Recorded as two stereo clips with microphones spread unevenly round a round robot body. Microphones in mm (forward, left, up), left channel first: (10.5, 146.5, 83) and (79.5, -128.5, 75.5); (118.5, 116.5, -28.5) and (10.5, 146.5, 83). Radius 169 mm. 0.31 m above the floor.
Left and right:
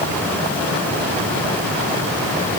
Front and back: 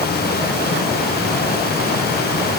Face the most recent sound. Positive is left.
No sound to turn to.